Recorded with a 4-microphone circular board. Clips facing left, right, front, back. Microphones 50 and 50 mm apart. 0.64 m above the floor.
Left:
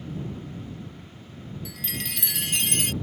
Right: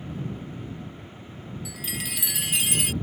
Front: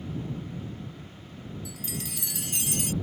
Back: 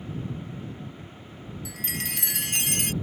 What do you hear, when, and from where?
1.6 s a chime: 175° right